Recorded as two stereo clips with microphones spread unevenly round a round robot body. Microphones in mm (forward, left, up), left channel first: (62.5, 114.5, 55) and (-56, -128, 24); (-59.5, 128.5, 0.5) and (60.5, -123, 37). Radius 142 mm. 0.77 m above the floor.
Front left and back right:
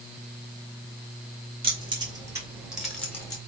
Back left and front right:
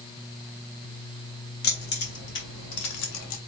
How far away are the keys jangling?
About 3 m.